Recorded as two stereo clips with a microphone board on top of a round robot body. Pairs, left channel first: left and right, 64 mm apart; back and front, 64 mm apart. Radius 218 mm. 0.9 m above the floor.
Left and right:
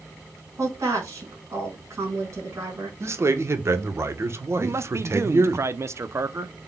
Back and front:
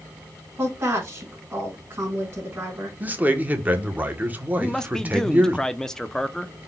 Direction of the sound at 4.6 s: 100° right.